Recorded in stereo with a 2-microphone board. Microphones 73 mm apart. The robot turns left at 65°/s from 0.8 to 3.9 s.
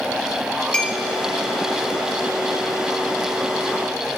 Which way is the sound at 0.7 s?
15° left (ahead or behind).